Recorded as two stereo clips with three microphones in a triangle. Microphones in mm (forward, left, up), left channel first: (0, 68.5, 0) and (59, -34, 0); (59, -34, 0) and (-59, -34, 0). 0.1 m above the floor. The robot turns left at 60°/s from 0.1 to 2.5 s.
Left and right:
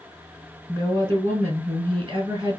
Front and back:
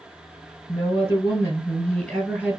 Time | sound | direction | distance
0.7 | a woman speaking | 25° left | 1.7 m